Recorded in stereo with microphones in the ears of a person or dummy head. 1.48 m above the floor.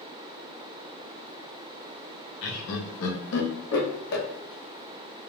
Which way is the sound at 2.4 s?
65° left (ahead or behind).